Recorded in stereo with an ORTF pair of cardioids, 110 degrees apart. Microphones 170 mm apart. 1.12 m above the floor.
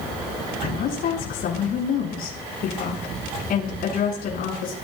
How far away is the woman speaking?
About 9.5 m.